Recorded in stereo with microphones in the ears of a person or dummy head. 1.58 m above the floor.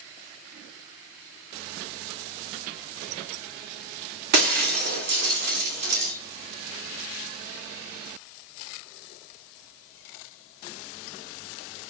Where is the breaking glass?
50° right (ahead or behind), 2 m.